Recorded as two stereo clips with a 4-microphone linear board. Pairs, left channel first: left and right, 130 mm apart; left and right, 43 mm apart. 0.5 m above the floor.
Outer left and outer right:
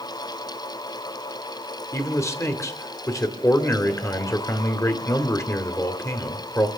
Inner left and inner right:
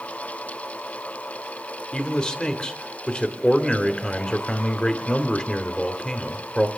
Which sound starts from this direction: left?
A man speaking, at 1.9 s.